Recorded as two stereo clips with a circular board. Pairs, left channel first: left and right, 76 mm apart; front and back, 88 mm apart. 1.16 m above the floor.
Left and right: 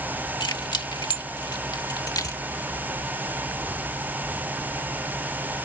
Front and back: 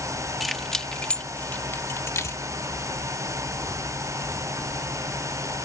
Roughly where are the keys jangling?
Left.